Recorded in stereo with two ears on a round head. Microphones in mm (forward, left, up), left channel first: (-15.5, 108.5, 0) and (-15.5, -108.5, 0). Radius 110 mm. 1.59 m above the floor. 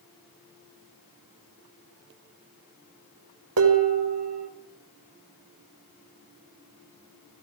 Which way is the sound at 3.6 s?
65° right (ahead or behind).